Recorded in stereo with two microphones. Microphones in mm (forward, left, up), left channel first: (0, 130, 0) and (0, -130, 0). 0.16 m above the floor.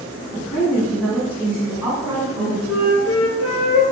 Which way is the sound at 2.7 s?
65° left (ahead or behind).